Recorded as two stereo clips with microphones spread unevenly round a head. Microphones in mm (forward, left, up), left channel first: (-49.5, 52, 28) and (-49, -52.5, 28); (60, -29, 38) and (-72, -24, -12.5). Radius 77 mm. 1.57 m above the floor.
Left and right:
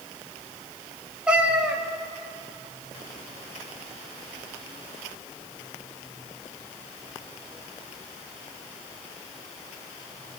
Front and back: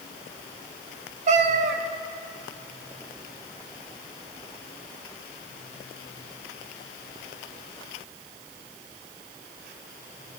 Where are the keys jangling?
I don't hear keys jangling.